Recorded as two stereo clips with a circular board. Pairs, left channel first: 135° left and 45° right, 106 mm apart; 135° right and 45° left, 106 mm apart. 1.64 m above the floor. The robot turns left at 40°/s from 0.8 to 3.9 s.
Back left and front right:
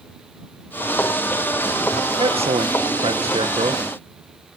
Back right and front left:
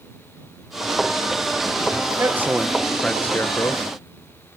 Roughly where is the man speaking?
Ahead.